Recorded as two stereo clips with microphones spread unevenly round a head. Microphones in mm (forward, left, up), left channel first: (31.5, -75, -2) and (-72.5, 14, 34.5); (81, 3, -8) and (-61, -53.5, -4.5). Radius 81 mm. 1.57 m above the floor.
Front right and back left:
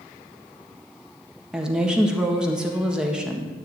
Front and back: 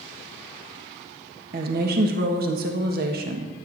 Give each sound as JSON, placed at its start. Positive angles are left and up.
{"t": 1.5, "sound": "a woman speaking", "azimuth_deg": -140, "distance_m": 1.7}